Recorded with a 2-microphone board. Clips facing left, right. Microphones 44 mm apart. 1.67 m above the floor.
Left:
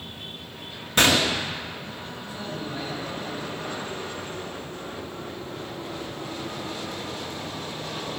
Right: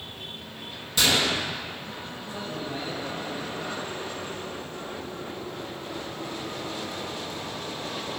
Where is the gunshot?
55° left (ahead or behind), 1.4 m.